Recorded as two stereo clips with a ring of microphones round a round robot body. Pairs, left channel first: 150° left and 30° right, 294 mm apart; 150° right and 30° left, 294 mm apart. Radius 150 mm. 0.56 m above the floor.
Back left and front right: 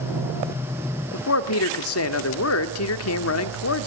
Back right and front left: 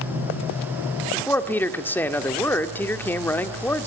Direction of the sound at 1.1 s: 130° left.